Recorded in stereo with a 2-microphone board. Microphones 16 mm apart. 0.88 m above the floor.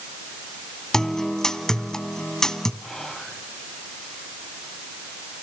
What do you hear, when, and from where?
0.9 s a guitar: 35° left (ahead or behind), 2.5 m
2.8 s whispering: 20° left (ahead or behind), 5.5 m